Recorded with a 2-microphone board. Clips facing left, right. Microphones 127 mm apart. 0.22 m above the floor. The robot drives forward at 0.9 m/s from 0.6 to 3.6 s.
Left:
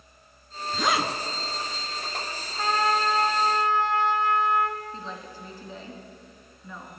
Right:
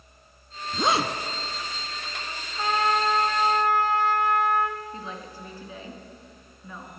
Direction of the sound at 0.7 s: 25° right (ahead or behind).